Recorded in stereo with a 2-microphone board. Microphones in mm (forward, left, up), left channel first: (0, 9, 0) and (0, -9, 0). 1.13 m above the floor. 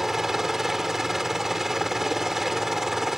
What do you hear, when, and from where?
0.0 s a helicopter: 20° right (ahead or behind)